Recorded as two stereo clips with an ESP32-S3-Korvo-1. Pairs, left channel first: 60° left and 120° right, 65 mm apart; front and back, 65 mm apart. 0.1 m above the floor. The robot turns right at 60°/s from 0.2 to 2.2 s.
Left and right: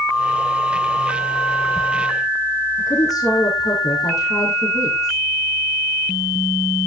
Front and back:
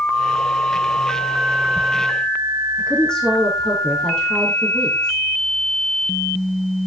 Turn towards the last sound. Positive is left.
turn(degrees=75)